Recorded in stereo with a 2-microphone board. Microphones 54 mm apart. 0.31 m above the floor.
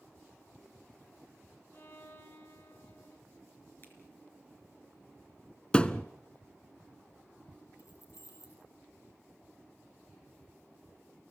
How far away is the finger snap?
About 4.5 m.